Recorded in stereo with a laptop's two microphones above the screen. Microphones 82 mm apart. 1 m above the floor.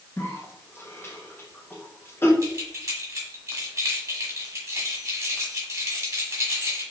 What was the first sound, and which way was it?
A cough, 30° left (ahead or behind).